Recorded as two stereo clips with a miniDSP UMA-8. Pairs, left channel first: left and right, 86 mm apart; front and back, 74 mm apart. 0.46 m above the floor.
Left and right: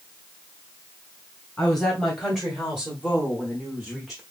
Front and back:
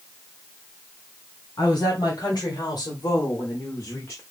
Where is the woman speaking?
15° left, 2 m; by 4.2 s 5° right, 1.1 m.